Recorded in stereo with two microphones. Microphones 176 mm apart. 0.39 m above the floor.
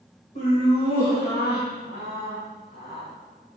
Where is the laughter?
50° left (ahead or behind), 2 m; by 3.1 s 70° left (ahead or behind), 4.5 m.